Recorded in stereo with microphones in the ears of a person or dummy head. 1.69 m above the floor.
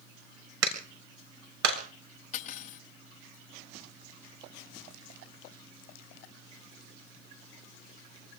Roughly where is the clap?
Right.